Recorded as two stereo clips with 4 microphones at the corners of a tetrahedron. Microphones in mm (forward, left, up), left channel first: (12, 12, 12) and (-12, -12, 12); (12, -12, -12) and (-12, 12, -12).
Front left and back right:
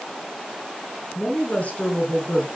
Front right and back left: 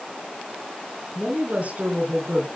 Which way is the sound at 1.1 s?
90° left.